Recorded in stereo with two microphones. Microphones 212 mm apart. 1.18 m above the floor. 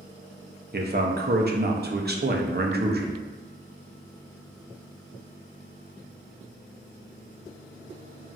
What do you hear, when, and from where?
0.7 s a man speaking: 50° right (ahead or behind), 0.5 m